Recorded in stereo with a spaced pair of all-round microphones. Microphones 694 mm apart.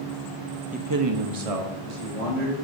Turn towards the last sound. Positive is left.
turn(degrees=-80)